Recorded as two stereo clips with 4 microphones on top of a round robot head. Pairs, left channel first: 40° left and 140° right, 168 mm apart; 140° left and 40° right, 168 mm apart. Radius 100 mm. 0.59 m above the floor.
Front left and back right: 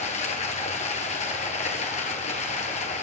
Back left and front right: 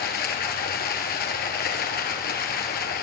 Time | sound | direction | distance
0.0 | running water | 100° left | 2 m